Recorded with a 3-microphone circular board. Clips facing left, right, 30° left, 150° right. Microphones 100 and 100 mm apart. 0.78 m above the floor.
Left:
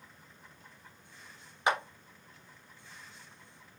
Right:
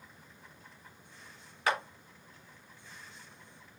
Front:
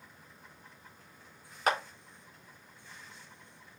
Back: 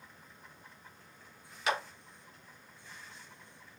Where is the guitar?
I don't hear a guitar.